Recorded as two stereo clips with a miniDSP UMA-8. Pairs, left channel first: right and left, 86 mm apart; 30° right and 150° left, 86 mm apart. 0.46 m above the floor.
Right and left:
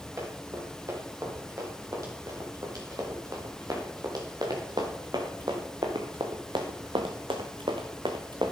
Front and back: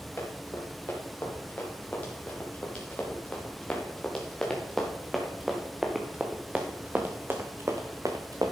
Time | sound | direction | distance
0.2 | running footsteps | 35° left | 4.5 m